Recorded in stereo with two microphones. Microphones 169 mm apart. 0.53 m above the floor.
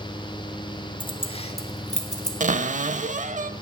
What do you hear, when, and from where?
1.0 s keys jangling: 30° left (ahead or behind), 0.8 m; by 2.3 s 40° left (ahead or behind), 1.7 m
2.4 s a cupboard door: 50° right (ahead or behind), 0.6 m